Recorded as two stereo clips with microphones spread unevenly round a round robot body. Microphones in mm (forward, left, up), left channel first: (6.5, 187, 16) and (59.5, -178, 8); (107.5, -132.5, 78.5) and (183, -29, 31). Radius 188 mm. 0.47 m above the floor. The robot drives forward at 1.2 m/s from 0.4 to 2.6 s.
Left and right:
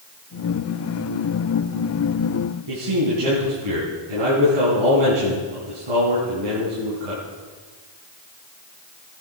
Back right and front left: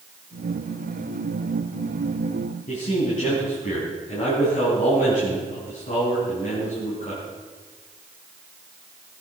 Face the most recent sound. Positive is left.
turn(degrees=-100)